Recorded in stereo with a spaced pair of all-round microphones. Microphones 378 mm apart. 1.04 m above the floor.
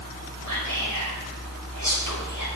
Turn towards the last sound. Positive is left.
turn(degrees=-60)  # may be behind; listen again after turning